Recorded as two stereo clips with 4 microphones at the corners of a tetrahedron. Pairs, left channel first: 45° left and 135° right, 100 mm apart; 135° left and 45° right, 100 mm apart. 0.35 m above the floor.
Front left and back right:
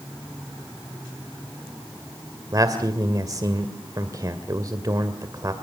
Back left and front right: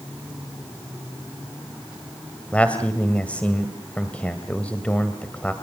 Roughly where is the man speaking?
Behind right.